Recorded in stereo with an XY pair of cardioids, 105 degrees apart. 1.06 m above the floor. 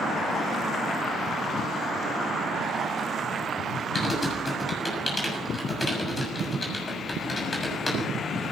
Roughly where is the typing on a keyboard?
Ahead left.